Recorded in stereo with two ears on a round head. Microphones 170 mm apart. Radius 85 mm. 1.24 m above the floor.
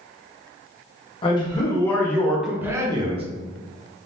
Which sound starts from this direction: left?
A man speaking, at 1.2 s.